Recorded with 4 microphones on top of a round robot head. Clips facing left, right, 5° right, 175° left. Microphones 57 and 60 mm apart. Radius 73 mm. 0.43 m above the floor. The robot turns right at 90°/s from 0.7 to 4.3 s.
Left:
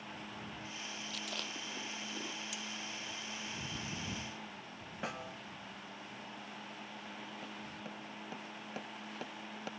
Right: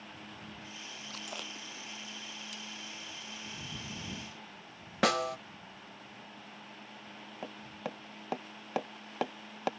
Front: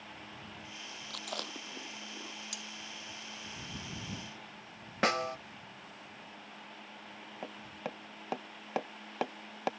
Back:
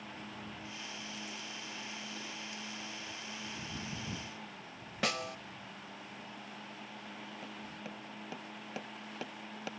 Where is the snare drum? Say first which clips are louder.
Right 14 dB, front 5 dB; 65° right.